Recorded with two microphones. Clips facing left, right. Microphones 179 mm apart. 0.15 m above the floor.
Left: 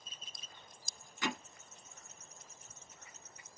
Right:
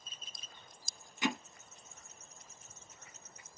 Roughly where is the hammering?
Centre.